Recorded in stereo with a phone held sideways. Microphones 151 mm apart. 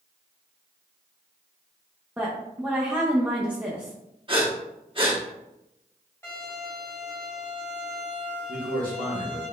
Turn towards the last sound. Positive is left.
turn(degrees=-60)  # may be behind; listen again after turning